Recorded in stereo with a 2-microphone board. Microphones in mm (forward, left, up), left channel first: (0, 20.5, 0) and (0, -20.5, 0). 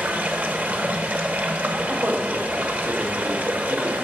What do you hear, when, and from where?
0.0 s running water: 40° right (ahead or behind), 0.8 m
1.9 s a man speaking: 50° right (ahead or behind), 1.2 m